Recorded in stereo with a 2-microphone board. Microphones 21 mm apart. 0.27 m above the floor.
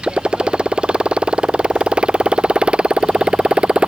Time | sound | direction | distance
0.0 | a motorcycle | 55° right (ahead or behind) | ?